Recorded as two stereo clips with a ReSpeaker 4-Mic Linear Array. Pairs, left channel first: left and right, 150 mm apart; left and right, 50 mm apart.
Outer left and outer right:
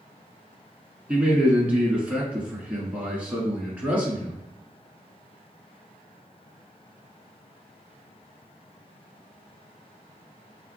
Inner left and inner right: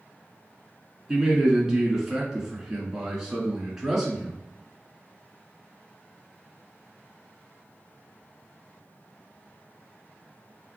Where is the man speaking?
10° right (ahead or behind), 1.6 m.